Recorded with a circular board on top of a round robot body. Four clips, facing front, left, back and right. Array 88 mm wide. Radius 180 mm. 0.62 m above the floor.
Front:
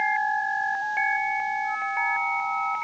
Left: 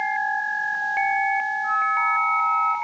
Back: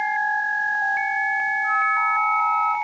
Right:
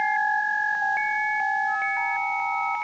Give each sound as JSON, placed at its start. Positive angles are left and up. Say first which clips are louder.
{"t": 1.6, "sound": "a flute", "louder": "left 4 dB, back 6 dB", "azimuth_deg": 135, "distance_m": 5.0}